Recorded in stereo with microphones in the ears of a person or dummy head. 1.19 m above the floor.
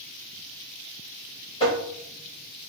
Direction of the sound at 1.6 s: 30° left (ahead or behind).